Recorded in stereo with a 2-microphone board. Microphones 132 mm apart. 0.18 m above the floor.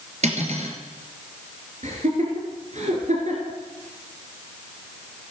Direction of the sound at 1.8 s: 65° right (ahead or behind).